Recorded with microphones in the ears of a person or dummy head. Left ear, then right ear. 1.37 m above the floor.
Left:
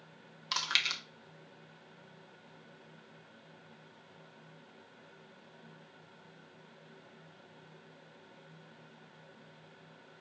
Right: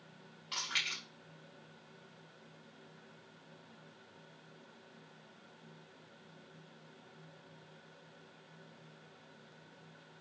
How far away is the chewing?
About 0.8 m.